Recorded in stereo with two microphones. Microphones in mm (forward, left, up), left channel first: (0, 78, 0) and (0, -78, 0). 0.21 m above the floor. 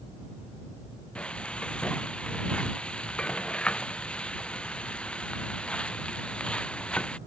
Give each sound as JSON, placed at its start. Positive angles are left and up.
{"t": 1.1, "sound": "frying", "side_deg": 5}